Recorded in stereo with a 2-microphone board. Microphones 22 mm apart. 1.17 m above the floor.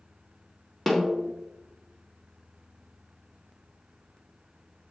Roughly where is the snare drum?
Centre.